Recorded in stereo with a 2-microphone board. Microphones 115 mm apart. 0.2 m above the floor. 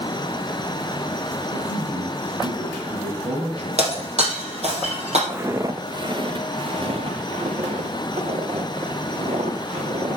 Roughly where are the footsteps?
Centre.